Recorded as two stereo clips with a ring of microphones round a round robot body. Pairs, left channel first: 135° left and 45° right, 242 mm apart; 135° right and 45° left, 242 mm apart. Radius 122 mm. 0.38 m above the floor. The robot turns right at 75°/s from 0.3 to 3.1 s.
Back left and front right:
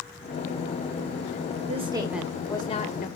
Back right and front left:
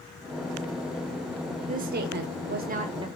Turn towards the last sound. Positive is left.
turn(degrees=110)